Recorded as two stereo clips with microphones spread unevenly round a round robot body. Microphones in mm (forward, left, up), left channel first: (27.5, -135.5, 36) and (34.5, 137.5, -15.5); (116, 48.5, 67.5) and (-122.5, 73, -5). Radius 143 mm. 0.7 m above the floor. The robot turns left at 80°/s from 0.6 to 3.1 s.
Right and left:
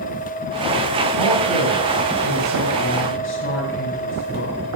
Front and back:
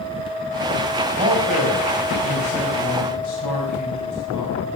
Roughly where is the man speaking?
Behind left.